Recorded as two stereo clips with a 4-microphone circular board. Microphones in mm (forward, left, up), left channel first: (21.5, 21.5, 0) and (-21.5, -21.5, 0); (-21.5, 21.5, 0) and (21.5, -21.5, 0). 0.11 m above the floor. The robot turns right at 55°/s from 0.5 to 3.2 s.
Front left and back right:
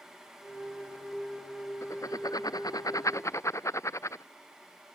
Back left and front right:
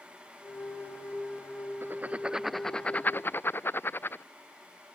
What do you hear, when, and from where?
1.8 s writing: 5° left; by 4.2 s 85° left